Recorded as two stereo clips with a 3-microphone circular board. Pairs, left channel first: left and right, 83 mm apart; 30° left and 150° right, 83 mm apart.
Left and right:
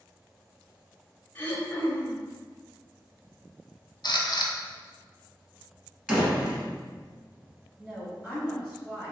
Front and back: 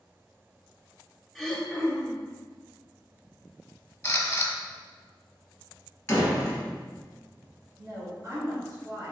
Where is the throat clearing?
120° left, 0.7 m.